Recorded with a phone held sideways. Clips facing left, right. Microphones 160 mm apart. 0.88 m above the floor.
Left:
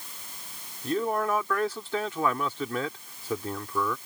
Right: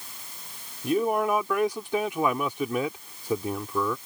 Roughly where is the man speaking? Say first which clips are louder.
Right 3 dB; centre.